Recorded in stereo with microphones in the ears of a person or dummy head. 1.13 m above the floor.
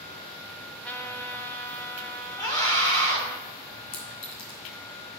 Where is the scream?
20° left (ahead or behind), 3 m.